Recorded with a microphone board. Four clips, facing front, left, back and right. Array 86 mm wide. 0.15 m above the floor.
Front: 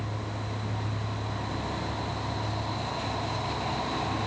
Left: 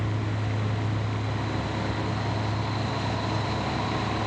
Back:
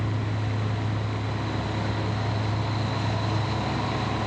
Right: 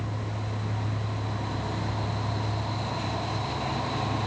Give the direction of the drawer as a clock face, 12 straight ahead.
No drawer in this recording.